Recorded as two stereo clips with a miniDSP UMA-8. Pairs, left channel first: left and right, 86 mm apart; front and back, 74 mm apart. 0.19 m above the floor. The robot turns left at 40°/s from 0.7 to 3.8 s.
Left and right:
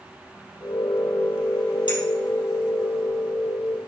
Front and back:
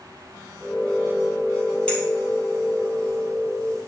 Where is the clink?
70° left, 4 m; by 2.0 s 65° left, 4 m.